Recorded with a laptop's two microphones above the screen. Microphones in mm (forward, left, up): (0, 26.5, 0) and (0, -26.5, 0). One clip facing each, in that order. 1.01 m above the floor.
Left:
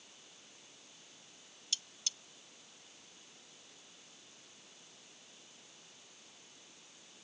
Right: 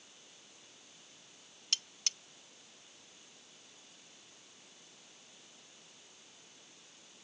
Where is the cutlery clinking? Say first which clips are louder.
Right 3 dB; 60° right (ahead or behind).